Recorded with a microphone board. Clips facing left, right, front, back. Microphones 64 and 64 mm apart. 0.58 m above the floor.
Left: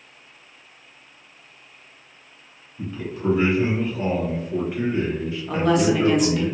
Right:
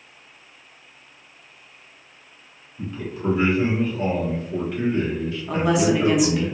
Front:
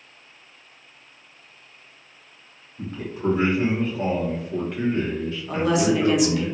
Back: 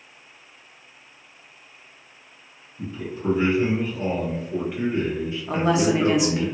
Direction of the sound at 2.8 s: 5° left.